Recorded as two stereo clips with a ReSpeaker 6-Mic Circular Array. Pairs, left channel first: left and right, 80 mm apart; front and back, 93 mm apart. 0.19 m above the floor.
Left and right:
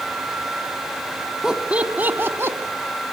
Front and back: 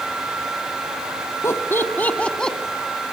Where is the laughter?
15° right, 1.2 m; by 2.6 s 80° right, 1.2 m.